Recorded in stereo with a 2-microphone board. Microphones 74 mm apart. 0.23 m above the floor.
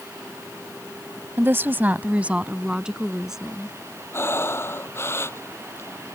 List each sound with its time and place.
1.4 s a woman speaking: 30° right (ahead or behind); by 3.8 s 5° right (ahead or behind)
4.1 s breathing: 35° left (ahead or behind)